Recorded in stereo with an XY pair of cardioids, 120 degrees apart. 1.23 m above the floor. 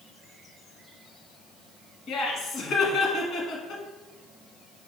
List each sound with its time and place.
2.1 s laughter: 60° left, 1.3 m